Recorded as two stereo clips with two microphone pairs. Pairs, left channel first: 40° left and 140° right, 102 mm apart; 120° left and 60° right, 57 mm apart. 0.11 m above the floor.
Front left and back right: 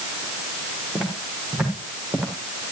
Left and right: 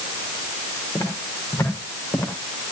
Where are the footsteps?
130° left, 6.5 m; by 2.3 s 135° left, 7 m.